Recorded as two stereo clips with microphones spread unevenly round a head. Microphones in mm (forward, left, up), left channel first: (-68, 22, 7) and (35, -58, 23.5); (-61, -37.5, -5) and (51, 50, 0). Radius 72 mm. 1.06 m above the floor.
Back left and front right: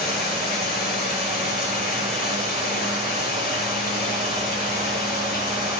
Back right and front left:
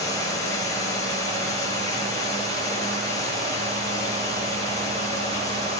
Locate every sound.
0.0 s running water: 150° left, 7 m